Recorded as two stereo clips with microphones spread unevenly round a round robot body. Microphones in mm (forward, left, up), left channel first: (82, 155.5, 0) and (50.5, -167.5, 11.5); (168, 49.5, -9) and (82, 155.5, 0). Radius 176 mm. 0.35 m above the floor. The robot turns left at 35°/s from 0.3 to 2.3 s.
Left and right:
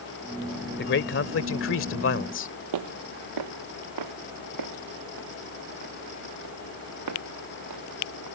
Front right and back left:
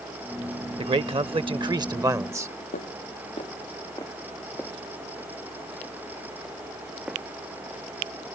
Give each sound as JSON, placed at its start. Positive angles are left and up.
{"t": 0.8, "sound": "a man speaking", "azimuth_deg": 120}
{"t": 2.7, "sound": "footsteps", "azimuth_deg": -80}